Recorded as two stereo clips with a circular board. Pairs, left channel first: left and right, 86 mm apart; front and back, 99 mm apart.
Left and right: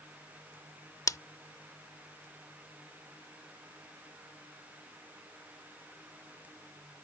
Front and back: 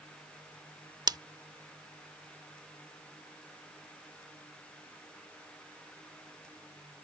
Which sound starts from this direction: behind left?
Scissors, at 1.1 s.